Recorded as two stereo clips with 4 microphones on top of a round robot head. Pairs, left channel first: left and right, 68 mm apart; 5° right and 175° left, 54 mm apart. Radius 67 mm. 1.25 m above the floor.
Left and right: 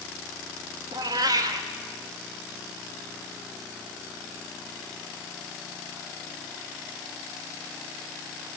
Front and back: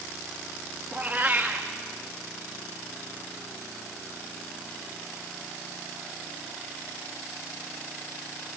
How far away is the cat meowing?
About 0.8 m.